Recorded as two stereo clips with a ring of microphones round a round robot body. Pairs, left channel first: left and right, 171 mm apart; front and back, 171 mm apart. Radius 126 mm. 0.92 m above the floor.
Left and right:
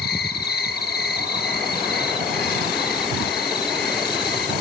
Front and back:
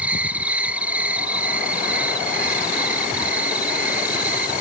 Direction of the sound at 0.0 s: 100° left.